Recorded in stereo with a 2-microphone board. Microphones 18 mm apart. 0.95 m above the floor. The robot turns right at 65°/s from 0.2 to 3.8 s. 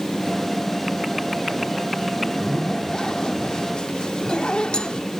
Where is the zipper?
10° left, 1.0 m; by 5.1 s 120° left, 1.0 m.